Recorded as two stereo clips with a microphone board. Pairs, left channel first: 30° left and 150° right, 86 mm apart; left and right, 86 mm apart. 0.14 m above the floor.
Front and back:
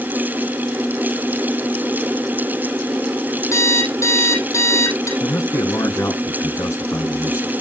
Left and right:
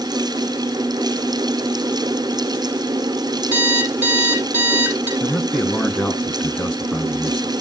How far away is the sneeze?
No sneeze in this recording.